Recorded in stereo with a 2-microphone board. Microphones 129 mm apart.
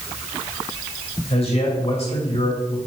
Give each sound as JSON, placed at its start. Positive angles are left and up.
{"t": 1.3, "sound": "a man speaking", "side_deg": 55, "distance_m": 2.5}